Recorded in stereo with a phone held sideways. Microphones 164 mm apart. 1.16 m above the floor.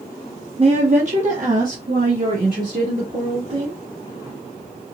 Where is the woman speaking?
35° right (ahead or behind), 0.5 m; by 3.8 s 60° right (ahead or behind), 2 m.